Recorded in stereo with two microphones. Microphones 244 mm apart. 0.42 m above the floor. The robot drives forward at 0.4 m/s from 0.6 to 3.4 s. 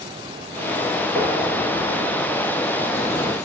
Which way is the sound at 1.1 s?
10° left (ahead or behind).